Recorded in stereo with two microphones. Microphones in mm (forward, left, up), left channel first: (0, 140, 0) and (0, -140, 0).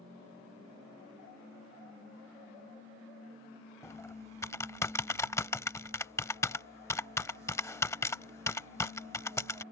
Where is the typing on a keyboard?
10° left (ahead or behind).